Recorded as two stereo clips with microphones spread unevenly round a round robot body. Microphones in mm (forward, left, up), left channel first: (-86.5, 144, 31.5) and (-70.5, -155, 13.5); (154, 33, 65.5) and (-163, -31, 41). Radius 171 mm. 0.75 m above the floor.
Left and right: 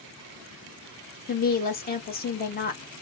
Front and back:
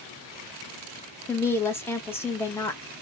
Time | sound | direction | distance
1.3 | a woman speaking | 95° left | 0.9 m